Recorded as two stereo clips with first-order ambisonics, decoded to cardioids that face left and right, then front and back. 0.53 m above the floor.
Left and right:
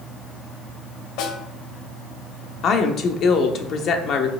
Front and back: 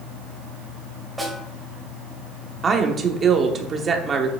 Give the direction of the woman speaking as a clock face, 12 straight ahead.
8 o'clock.